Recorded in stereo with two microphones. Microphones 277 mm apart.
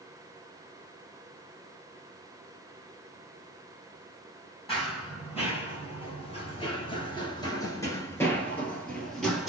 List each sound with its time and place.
4.7 s running footsteps: 20° left (ahead or behind), 2.0 m; by 9.5 s centre (ahead or behind), 1.6 m